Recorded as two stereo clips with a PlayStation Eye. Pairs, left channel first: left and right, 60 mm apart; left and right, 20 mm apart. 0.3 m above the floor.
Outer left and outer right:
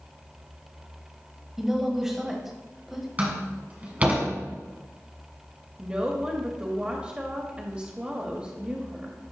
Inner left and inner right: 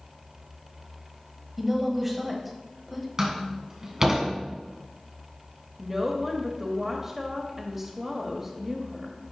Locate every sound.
1.6 s a woman speaking: 10° right (ahead or behind), 1.5 m
3.2 s a door slam: 25° right (ahead or behind), 1.7 m
5.8 s a woman speaking: 20° right (ahead or behind), 0.9 m